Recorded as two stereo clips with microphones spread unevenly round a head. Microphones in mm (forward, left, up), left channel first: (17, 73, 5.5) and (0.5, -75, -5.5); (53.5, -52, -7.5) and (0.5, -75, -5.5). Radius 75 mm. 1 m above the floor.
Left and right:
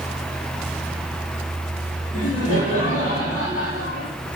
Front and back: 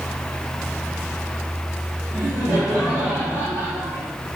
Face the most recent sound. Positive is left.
turn(degrees=130)